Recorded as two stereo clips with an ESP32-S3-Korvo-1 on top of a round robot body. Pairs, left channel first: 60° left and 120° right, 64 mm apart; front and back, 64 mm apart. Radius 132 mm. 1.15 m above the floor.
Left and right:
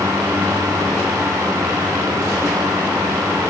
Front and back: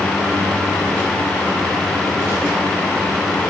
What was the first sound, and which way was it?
Only background noise.